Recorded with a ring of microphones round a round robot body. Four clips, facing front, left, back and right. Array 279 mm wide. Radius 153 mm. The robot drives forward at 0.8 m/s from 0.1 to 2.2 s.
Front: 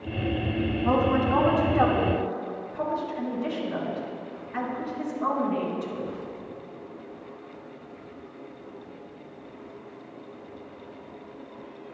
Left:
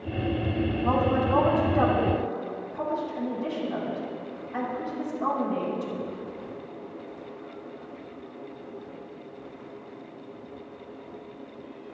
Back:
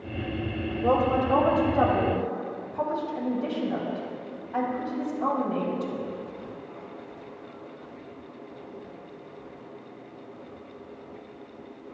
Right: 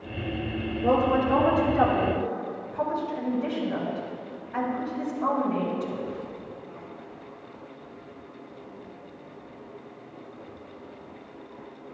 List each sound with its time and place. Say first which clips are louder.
0.8 s a woman speaking: right 3 dB, back 1 dB; 145° right, 2.5 m; by 6.1 s 155° right, 3.5 m